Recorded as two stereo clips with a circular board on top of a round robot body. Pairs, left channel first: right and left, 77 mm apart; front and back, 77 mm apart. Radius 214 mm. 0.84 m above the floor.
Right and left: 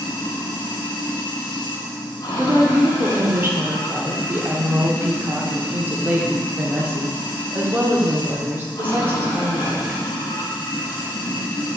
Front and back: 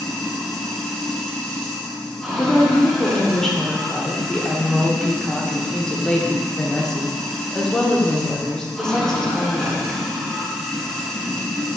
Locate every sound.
0.0 s running water: 85° right, 1.0 m
2.4 s a woman speaking: 75° left, 1.0 m